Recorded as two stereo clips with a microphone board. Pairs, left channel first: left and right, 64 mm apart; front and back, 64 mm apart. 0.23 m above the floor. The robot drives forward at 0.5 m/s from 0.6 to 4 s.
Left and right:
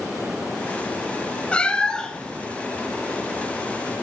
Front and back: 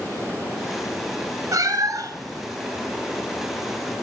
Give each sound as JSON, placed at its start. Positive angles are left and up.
{"t": 1.5, "sound": "a cat meowing", "azimuth_deg": 160, "distance_m": 0.6}